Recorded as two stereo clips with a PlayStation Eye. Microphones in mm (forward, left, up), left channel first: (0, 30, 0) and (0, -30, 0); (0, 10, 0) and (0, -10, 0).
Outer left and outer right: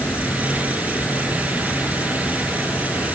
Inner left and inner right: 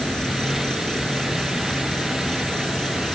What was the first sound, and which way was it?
An insect, 35° left (ahead or behind).